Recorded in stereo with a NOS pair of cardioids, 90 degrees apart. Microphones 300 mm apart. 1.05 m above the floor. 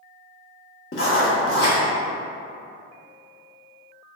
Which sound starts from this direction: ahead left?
Writing, at 0.9 s.